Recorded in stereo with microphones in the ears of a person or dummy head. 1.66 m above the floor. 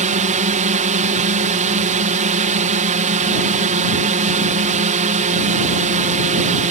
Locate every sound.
0.0 s a drone: 35° right (ahead or behind)